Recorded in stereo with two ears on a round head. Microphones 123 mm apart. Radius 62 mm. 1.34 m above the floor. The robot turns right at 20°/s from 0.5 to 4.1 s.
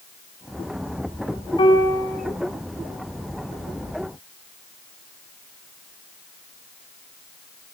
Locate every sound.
1.6 s a piano: 40° left (ahead or behind), 4.5 m; by 2.2 s 25° left (ahead or behind), 4.5 m